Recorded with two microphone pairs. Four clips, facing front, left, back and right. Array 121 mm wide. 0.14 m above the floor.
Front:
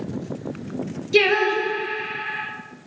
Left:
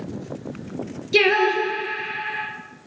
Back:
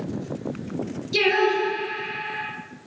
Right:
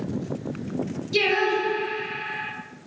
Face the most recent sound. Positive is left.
turn(degrees=55)